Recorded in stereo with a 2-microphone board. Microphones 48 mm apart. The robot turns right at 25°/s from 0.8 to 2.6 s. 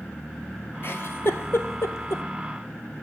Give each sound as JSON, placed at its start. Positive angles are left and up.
{"t": 0.8, "sound": "a giggle", "side_deg": 55, "distance_m": 0.6}